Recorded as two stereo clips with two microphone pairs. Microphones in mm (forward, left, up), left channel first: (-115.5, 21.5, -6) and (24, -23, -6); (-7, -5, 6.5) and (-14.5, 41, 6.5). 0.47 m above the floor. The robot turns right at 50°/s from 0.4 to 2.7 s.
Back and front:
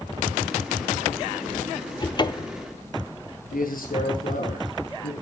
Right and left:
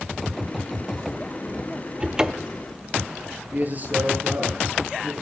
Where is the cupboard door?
150° left, 0.7 m; by 2.7 s 175° right, 0.7 m.